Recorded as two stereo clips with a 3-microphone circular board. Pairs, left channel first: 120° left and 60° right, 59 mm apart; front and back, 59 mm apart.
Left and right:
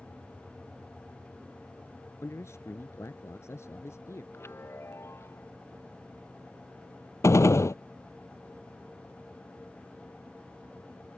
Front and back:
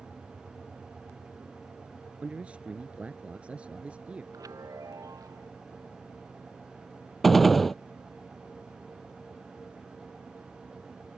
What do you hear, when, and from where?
2.2 s a man speaking: 115° left
4.3 s a chime: 165° left
7.2 s a gunshot: 85° left